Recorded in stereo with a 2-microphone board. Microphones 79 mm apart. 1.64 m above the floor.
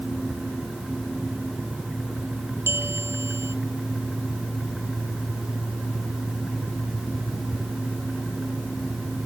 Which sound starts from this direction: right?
A bell, at 2.7 s.